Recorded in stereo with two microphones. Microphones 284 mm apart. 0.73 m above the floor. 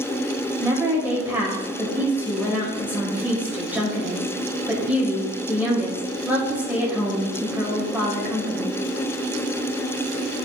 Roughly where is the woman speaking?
Centre.